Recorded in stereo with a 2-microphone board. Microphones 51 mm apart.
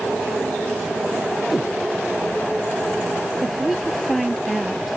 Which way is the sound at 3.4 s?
Centre (ahead or behind).